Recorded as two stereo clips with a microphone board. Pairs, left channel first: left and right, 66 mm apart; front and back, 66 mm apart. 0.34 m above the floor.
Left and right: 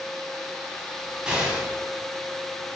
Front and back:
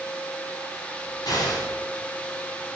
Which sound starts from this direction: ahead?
An explosion, at 1.3 s.